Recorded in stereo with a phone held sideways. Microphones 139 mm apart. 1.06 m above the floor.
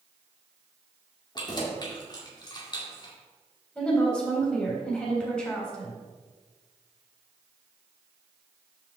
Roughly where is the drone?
No drone in this recording.